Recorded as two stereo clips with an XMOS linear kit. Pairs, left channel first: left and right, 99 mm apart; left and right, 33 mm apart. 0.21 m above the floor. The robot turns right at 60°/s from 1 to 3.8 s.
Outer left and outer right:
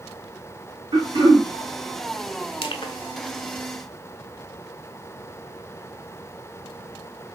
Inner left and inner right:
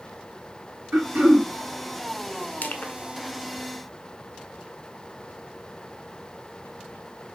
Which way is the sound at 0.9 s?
65° right (ahead or behind).